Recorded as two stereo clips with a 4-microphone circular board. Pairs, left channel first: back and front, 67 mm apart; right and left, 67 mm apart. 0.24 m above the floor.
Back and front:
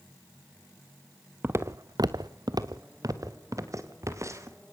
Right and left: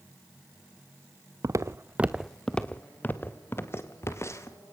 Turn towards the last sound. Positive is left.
turn(degrees=-45)